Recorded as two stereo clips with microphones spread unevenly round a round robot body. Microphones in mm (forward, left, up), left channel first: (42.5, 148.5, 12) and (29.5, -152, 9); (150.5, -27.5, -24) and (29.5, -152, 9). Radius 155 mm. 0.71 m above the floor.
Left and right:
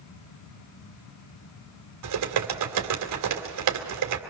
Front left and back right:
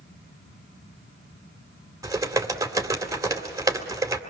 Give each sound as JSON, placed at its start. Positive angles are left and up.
{"t": 2.0, "sound": "typing on a keyboard", "azimuth_deg": -60, "distance_m": 2.5}